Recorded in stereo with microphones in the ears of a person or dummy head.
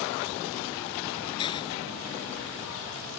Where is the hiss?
25° left (ahead or behind).